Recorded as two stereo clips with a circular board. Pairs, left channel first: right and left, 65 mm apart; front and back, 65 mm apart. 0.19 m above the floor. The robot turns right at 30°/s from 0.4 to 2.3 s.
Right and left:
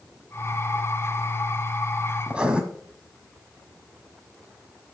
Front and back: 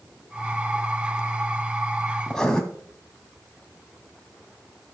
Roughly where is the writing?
Ahead left.